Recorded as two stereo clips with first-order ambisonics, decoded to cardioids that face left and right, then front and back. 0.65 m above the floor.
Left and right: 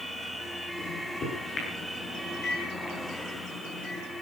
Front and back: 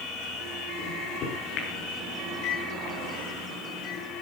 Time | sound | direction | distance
0.8 | a microwave | 30° left | 8 m